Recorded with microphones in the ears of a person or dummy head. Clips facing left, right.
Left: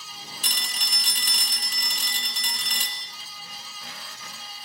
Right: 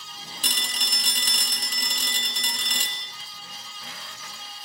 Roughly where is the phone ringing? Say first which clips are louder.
Right 4 dB; right.